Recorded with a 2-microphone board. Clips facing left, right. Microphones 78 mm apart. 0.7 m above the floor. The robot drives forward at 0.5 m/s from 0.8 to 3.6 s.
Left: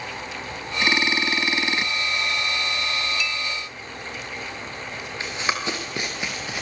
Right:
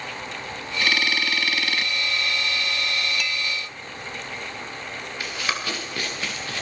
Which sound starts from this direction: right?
A clink, at 3.2 s.